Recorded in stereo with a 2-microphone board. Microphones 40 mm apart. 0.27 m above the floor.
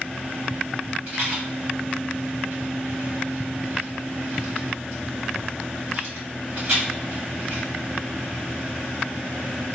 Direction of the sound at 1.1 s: 40° right (ahead or behind).